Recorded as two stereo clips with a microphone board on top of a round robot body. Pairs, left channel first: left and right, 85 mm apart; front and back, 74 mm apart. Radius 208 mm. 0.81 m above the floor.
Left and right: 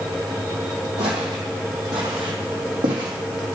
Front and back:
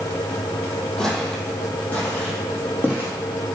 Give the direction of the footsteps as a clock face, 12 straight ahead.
3 o'clock.